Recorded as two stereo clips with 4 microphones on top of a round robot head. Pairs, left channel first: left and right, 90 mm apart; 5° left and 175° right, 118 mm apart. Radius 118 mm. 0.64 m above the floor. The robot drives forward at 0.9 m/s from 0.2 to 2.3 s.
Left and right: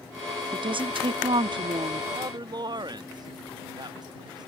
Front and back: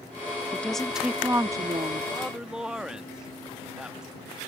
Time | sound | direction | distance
0.5 | a woman speaking | 75° right | ?
2.1 | a man speaking | 85° right | ?